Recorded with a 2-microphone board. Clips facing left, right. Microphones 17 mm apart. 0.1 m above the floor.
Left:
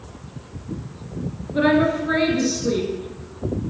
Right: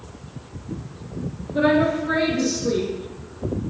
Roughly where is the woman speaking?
Centre.